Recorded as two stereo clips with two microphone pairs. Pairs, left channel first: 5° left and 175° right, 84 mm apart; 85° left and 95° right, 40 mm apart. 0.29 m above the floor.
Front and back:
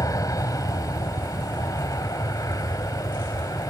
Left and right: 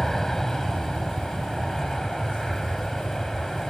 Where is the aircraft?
10° left.